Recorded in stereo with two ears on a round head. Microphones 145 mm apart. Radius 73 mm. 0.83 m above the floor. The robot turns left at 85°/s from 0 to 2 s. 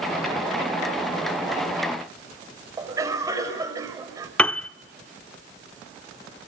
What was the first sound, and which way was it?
A cough, 20° right (ahead or behind).